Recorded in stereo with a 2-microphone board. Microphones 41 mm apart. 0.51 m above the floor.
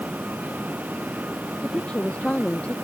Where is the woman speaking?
25° left (ahead or behind).